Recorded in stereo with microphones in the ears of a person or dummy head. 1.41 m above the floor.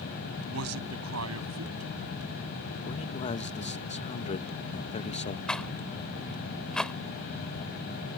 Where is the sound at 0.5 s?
85° right.